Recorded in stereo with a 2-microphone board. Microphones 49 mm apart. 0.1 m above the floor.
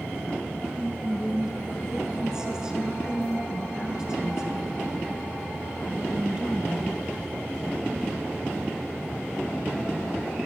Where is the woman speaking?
15° right (ahead or behind), 1.1 m.